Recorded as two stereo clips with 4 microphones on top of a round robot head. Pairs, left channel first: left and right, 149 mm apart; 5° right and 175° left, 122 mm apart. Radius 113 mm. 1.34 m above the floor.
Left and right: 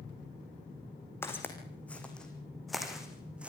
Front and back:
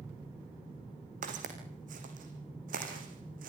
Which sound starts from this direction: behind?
Footsteps, at 1.2 s.